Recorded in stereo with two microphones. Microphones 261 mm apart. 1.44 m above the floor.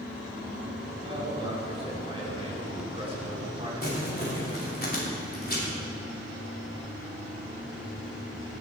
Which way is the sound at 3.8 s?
35° left (ahead or behind).